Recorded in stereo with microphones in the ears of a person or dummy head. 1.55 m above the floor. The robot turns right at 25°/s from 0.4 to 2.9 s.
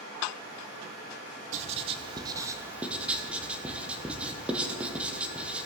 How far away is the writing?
About 0.7 m.